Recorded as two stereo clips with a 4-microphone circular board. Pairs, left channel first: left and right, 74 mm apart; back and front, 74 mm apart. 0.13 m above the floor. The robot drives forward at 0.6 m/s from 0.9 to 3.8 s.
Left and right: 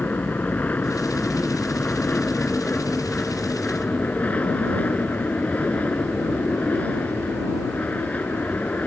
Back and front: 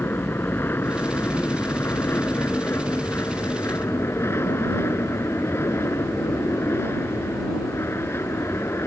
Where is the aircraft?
145° left; by 8.9 s 150° left.